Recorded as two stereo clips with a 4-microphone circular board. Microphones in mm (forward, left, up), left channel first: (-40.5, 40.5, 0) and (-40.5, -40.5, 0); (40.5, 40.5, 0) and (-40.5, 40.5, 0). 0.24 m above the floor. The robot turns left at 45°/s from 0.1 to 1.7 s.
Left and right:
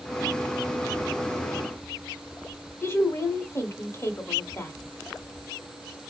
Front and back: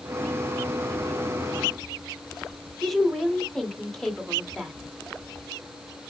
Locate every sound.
2.8 s a woman speaking: 85° left, 1.3 m